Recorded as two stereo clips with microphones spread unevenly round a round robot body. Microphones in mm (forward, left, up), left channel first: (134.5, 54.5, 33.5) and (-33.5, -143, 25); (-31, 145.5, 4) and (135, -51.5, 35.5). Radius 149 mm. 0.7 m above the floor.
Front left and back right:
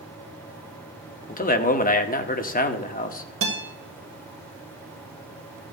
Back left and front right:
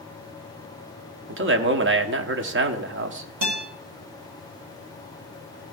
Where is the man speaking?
5° right, 1.1 m.